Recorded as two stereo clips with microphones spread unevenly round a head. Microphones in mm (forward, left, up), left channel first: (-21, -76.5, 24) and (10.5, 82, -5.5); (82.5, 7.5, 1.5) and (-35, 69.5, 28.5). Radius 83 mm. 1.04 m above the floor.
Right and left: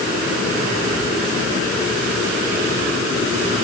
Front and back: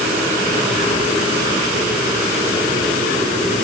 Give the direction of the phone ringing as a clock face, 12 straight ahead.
No phone ringing in this recording.